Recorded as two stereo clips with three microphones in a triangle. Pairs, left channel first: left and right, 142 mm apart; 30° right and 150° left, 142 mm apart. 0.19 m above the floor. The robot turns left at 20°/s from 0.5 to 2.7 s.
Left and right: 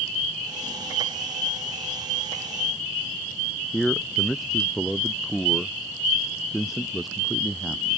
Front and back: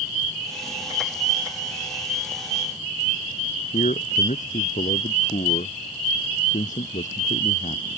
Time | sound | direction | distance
3.7 | a man speaking | straight ahead | ?